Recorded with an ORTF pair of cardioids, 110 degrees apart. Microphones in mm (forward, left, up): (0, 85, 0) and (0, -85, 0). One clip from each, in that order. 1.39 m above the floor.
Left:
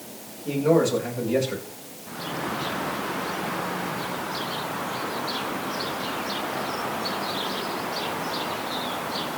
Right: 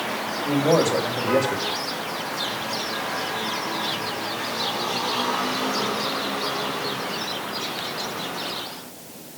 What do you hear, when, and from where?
0.5 s a man speaking: 20° right, 6 m